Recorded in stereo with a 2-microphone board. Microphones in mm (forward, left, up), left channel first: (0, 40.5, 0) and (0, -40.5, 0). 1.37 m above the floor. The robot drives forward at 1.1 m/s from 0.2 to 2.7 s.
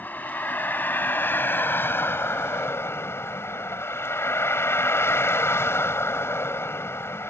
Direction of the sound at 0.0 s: 20° left (ahead or behind).